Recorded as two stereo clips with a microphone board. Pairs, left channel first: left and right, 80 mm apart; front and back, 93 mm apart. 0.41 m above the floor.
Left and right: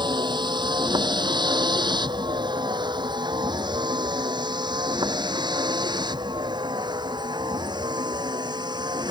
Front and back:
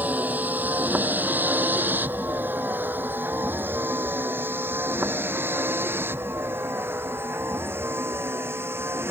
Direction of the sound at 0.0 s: 110° right.